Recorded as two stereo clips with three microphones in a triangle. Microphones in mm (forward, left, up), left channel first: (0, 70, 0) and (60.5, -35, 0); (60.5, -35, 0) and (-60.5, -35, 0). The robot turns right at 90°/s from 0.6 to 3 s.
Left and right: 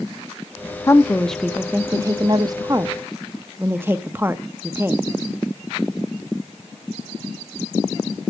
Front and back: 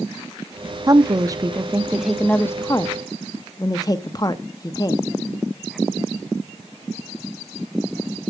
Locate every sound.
0.9 s a woman speaking: 160° left, 0.6 m; by 5.0 s 5° right, 0.6 m